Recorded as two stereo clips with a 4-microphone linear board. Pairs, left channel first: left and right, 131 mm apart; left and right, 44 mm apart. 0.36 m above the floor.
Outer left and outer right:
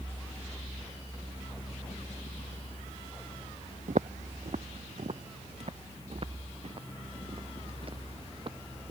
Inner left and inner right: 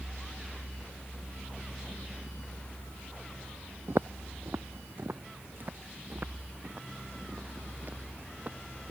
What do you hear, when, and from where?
3.9 s footsteps: 70° right (ahead or behind); by 8.9 s 40° right (ahead or behind)